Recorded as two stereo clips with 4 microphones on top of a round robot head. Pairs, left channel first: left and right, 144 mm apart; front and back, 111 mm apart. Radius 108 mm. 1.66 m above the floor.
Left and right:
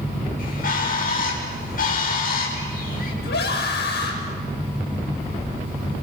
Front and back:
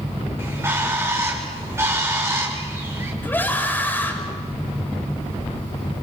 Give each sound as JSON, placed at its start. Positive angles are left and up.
{"t": 0.4, "sound": "a bird", "azimuth_deg": 110, "distance_m": 6.5}
{"t": 3.2, "sound": "a scream", "azimuth_deg": 70, "distance_m": 7.0}